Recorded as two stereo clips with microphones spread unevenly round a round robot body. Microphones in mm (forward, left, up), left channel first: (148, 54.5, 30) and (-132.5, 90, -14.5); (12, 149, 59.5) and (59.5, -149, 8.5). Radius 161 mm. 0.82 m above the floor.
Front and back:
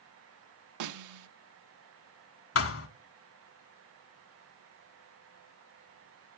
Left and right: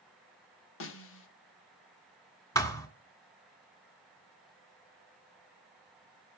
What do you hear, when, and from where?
0.8 s a snare drum: 155° left, 0.9 m
2.5 s a thud: 25° left, 1.5 m